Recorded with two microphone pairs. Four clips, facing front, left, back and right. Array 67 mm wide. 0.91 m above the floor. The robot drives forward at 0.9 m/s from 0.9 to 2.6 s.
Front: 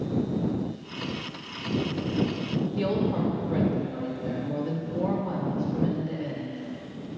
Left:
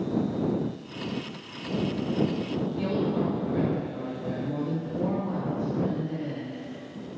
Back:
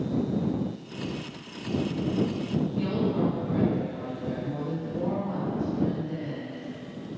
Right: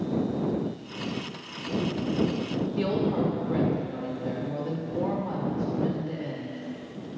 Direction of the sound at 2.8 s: 60° right.